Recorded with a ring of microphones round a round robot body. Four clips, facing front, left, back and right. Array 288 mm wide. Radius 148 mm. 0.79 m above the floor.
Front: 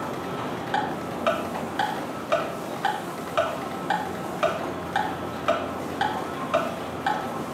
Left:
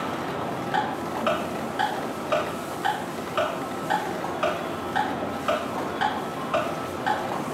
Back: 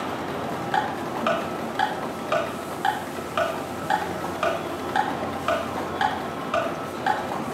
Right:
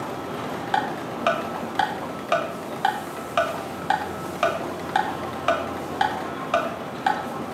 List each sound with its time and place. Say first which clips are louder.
0.7 s ticking: right 2 dB, back 2 dB; 90° right, 2.5 m